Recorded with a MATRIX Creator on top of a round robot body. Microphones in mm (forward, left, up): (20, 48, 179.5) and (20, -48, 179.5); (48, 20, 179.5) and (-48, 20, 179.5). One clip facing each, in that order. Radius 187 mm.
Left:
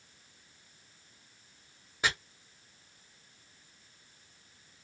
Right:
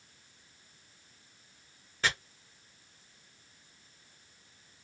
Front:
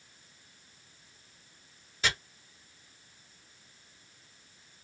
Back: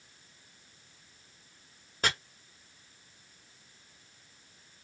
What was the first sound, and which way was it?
Chopping, 165° left.